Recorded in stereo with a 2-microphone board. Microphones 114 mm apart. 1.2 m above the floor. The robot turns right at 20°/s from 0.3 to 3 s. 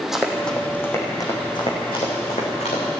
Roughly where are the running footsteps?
Centre.